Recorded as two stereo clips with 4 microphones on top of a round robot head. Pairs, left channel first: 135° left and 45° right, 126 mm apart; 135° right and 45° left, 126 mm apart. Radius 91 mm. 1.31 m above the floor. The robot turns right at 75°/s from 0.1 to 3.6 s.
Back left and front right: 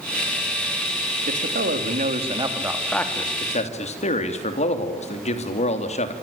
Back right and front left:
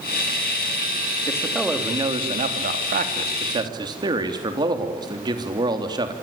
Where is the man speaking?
75° right, 3.5 m; by 6.1 s 100° left, 3.5 m.